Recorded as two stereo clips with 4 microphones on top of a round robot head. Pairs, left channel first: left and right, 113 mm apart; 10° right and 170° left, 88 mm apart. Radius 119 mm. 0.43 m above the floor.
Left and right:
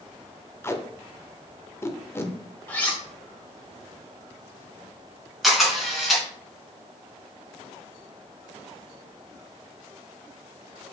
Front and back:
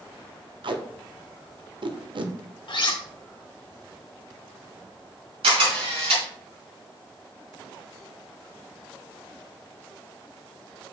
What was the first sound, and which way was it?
Tape being pulled, 155° left.